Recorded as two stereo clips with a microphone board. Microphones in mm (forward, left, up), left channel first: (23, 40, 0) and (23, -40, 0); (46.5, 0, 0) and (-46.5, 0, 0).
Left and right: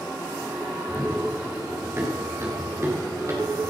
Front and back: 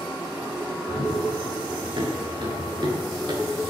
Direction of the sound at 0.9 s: 155° right.